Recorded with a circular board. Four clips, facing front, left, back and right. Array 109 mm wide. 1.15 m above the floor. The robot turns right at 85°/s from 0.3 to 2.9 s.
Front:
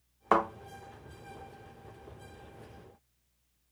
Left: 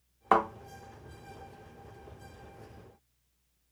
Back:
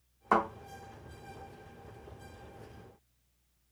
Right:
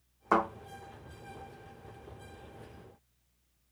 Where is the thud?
50° left, 1.1 m; by 0.5 s 60° left, 1.1 m.